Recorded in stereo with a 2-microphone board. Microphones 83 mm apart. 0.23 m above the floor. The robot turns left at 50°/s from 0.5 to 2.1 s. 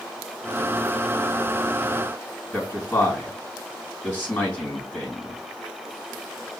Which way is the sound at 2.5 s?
20° left (ahead or behind).